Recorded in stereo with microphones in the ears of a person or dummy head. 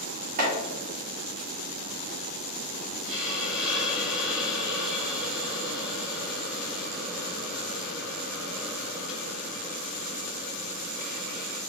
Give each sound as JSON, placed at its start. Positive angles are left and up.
{"t": 0.4, "sound": "chopping", "side_deg": -45, "distance_m": 1.2}
{"t": 3.1, "sound": "a hiss", "side_deg": 0, "distance_m": 1.4}